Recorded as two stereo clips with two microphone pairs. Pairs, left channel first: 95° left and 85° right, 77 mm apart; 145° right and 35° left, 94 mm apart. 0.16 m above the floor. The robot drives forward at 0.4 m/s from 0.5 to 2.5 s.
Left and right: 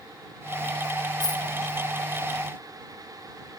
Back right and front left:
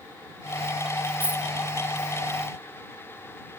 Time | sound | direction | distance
1.2 | a dropped coin | 105° left | 1.8 m